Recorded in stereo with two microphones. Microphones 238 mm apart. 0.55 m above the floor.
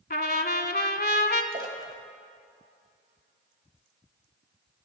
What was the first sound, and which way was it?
A trumpet, 45° left (ahead or behind).